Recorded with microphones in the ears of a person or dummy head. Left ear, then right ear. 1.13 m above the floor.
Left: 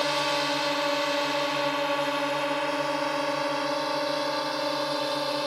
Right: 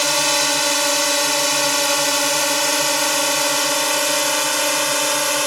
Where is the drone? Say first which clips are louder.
Right 8 dB; 80° right; by 5.5 s 55° right (ahead or behind).